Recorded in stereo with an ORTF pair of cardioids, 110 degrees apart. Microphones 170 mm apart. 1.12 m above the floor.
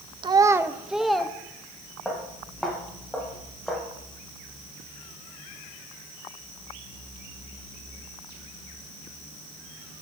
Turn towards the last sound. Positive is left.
turn(degrees=0)